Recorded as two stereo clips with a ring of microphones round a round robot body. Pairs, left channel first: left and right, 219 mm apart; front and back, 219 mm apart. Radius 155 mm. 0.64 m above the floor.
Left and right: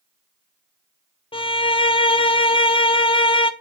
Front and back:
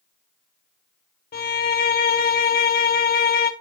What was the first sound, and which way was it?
A violin, 30° left.